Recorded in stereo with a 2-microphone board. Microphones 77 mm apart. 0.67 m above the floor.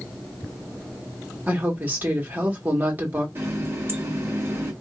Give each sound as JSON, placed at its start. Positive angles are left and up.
{"t": 1.5, "sound": "a woman speaking", "side_deg": -25, "distance_m": 1.5}
{"t": 3.4, "sound": "a running tap", "side_deg": -35, "distance_m": 1.0}